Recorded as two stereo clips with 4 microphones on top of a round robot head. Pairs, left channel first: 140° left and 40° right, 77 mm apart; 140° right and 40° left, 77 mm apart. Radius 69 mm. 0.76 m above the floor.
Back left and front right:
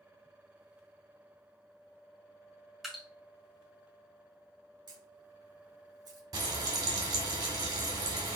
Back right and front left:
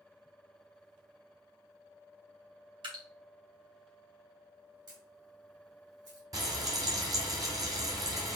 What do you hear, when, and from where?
2.8 s dripping: 45° left, 2.5 m
4.9 s a camera shutter: straight ahead, 4 m
6.3 s frying: 5° right, 2 m